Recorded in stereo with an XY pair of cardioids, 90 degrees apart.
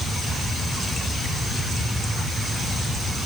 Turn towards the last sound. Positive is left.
No sound to turn to.